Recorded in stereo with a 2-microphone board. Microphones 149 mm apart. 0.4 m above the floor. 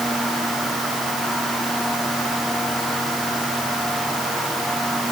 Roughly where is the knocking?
I don't hear knocking.